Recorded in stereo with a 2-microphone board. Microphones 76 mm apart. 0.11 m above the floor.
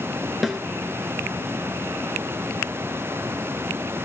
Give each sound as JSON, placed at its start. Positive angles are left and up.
{"t": 0.4, "sound": "a snare drum", "side_deg": 0, "distance_m": 1.6}